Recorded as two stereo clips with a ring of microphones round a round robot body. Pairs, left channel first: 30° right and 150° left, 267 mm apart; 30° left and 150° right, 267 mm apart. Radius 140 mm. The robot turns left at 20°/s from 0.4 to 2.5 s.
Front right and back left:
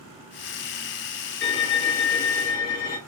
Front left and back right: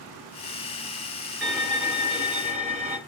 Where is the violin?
65° right, 1.0 m; by 3.0 s 85° right, 1.0 m.